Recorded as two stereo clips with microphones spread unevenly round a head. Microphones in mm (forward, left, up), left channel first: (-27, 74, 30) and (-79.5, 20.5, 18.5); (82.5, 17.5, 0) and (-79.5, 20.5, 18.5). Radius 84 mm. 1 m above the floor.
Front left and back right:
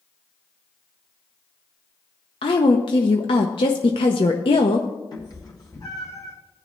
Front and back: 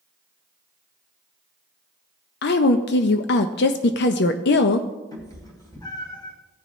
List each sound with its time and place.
2.4 s a woman speaking: 15° left, 0.6 m
5.1 s a cat meowing: 70° left, 2.5 m